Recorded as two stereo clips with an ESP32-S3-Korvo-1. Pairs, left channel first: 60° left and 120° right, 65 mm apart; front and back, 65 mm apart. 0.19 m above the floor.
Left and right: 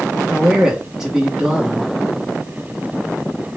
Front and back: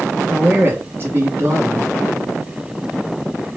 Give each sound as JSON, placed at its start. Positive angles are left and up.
{"t": 0.3, "sound": "a man speaking", "azimuth_deg": 160, "distance_m": 1.3}